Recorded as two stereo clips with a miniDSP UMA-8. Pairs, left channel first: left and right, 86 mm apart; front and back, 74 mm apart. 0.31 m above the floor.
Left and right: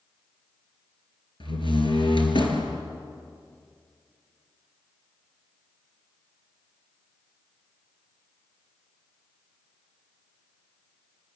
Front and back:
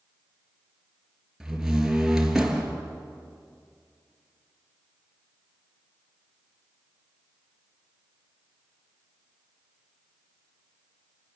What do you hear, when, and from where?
1.4 s a door slam: 95° left, 3 m